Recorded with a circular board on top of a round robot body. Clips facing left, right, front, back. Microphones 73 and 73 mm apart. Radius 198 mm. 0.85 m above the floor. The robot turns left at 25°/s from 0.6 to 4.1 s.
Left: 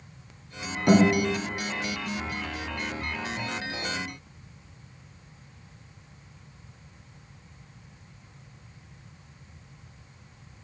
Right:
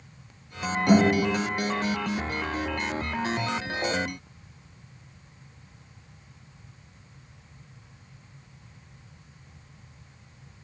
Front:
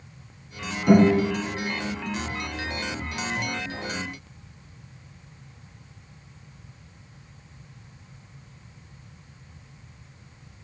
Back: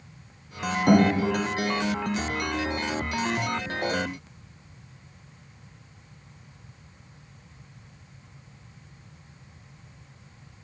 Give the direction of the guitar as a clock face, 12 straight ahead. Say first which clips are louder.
Even, front 3 dB; 7 o'clock.